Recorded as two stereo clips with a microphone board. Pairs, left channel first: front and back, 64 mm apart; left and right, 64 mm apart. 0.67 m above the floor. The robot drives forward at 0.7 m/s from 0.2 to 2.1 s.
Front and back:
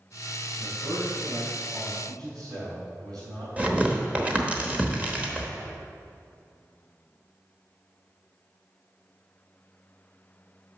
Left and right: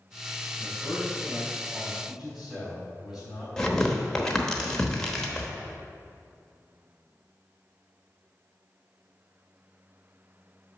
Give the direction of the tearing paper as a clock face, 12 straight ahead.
7 o'clock.